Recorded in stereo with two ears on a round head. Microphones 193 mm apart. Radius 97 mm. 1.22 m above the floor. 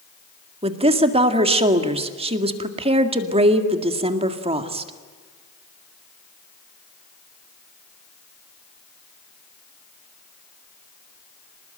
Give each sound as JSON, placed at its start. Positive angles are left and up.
{"t": 0.6, "sound": "a woman speaking", "side_deg": -25, "distance_m": 2.0}